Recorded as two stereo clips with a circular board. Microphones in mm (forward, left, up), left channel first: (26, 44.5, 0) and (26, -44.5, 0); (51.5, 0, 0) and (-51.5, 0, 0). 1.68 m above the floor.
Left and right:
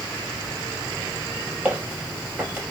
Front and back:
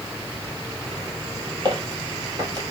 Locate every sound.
1.6 s footsteps: 150° right, 2 m